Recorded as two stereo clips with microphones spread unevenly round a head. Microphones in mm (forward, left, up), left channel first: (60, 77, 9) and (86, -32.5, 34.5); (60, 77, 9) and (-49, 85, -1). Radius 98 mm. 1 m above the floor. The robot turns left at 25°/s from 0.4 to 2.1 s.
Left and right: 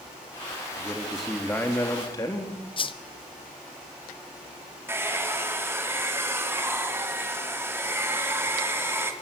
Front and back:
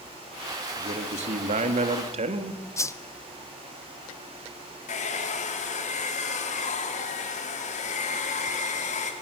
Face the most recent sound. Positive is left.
turn(degrees=-5)